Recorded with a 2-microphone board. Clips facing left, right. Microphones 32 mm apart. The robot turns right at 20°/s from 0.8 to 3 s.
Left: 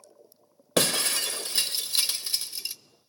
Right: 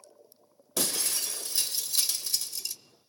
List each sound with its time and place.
0.8 s breaking glass: 65° left (ahead or behind), 1.0 m; by 2.8 s 30° left (ahead or behind), 1.0 m